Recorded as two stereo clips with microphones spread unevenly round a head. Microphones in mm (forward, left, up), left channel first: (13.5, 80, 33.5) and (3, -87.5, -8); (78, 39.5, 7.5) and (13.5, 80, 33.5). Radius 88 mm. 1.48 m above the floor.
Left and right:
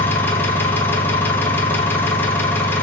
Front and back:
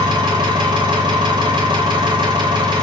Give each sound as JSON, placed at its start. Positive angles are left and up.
{"t": 0.0, "sound": "an engine running", "azimuth_deg": 160, "distance_m": 1.3}